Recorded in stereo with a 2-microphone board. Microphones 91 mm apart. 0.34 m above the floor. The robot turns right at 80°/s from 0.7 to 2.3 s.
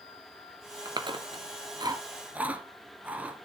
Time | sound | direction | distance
0.8 | chewing | 45° right (ahead or behind) | 1.1 m